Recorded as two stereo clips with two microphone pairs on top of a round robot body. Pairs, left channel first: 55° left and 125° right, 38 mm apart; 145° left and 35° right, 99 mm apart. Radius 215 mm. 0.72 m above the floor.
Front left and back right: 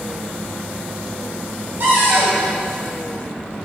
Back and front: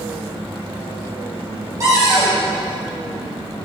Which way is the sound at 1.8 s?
95° right.